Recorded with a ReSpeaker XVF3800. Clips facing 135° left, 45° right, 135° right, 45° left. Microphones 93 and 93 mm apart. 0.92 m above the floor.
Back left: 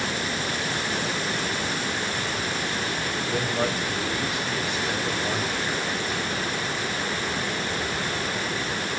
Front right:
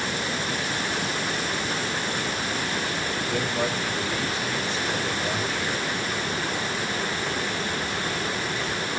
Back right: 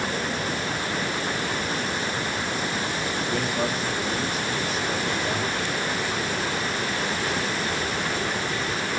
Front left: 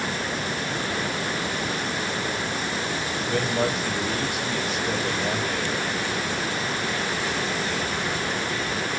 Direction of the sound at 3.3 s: 60° left.